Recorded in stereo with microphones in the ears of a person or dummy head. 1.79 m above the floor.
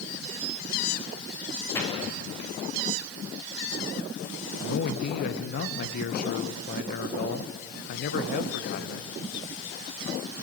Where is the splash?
15° left (ahead or behind), 6 m.